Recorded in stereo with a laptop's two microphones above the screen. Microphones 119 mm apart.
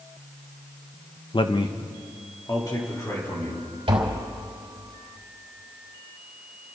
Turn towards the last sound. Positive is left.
turn(degrees=-50)  # may be behind; listen again after turning